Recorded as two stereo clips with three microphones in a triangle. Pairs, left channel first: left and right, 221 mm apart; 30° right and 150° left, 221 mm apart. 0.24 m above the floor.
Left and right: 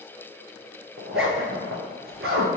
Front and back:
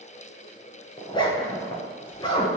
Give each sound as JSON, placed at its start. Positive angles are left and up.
{"t": 1.0, "sound": "a zipper", "azimuth_deg": -100, "distance_m": 0.7}